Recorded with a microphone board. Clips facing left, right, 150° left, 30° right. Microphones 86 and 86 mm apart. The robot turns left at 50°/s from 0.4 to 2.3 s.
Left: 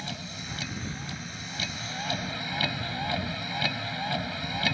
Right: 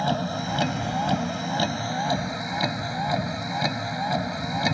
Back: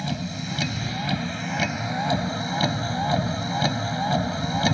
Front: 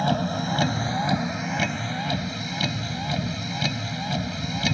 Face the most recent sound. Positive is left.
turn(degrees=-155)